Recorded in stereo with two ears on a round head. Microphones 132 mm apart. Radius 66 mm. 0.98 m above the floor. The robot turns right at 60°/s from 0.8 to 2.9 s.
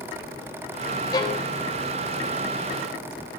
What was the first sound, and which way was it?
A violin, 25° left (ahead or behind).